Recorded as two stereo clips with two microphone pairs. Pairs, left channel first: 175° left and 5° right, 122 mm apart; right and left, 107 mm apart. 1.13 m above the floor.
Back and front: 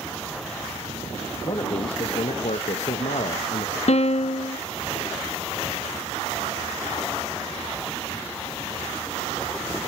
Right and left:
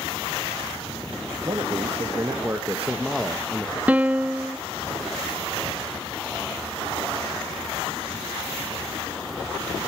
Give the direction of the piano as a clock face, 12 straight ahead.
7 o'clock.